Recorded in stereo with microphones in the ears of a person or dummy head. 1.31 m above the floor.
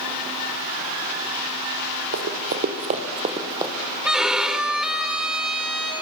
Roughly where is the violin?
Centre.